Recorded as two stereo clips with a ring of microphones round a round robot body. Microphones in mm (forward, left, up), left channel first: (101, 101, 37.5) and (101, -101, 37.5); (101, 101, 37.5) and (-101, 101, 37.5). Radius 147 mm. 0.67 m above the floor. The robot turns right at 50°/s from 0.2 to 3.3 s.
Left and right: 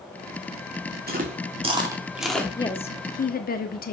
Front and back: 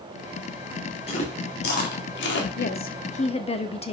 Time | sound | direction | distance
1.1 | chewing | 60° right | 2 m
2.6 | a woman speaking | 20° left | 1.2 m